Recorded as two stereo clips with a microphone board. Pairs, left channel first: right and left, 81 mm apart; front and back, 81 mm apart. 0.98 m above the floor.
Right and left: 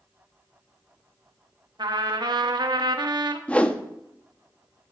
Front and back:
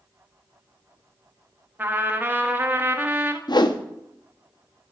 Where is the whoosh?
15° right, 0.6 m.